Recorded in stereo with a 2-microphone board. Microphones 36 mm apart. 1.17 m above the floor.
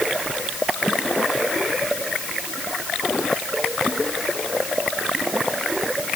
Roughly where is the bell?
No bell in this recording.